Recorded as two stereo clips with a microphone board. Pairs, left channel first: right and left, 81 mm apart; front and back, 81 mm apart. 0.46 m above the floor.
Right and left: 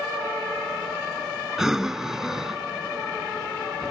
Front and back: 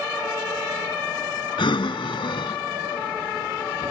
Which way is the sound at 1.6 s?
5° left.